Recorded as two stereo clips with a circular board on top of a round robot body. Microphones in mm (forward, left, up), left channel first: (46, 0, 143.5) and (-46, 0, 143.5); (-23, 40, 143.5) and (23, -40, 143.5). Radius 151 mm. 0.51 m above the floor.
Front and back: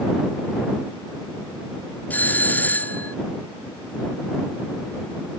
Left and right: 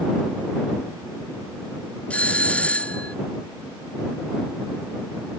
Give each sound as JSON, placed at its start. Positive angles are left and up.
{"t": 2.1, "sound": "a doorbell", "azimuth_deg": 55}